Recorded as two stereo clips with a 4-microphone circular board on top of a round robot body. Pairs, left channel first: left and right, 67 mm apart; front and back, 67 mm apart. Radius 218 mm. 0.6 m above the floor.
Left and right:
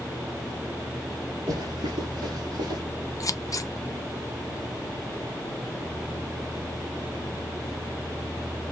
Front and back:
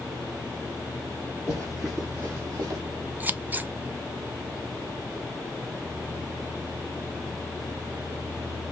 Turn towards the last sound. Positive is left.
turn(degrees=115)